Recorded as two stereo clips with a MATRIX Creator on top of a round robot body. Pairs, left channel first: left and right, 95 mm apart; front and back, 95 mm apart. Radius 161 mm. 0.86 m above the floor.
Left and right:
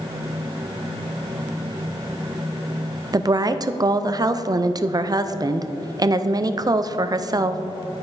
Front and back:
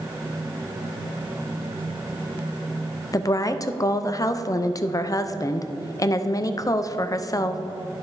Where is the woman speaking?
45° right, 0.6 m.